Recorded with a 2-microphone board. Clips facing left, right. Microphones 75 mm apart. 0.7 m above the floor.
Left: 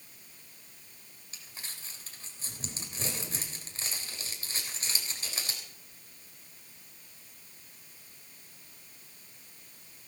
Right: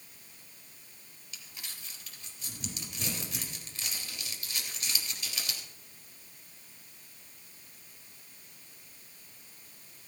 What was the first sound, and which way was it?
Crumpling, 35° left (ahead or behind).